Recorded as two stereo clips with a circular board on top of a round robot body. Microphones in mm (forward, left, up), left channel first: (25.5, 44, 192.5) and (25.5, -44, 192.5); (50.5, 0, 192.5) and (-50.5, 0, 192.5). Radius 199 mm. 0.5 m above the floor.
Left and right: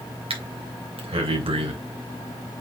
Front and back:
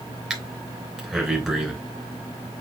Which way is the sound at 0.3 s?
95° right.